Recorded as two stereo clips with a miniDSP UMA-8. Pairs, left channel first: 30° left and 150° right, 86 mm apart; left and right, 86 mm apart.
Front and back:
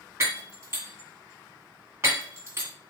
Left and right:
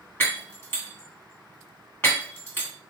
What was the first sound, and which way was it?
Breaking glass, 150° left.